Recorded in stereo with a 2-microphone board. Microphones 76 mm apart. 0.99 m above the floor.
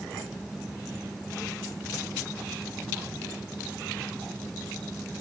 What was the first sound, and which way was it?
Only background noise.